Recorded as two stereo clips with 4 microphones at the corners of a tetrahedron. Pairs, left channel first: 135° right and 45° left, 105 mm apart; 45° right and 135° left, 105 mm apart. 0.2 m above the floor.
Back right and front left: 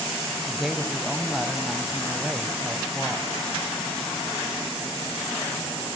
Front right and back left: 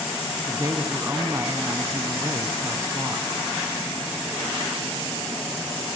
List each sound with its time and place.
0.5 s a woman speaking: 130° left, 1.1 m